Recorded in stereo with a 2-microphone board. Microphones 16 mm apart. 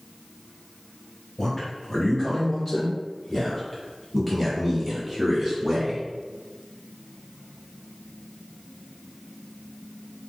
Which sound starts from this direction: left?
A man speaking, at 1.4 s.